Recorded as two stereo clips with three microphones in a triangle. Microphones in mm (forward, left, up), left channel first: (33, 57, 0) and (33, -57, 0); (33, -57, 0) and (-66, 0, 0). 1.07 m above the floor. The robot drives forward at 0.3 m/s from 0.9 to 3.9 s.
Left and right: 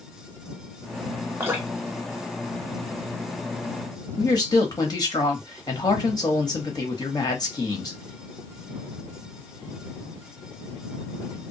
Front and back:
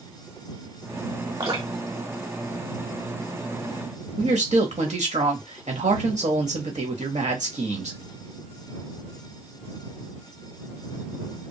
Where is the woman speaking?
145° left, 1.2 m.